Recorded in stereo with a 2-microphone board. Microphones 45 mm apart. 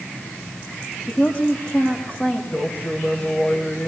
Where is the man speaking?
45° left (ahead or behind), 9 m.